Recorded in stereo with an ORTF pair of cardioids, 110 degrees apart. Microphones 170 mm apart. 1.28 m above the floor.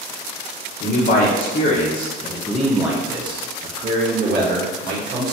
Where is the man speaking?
60° left, 1.2 m; by 5.3 s 65° right, 1.6 m.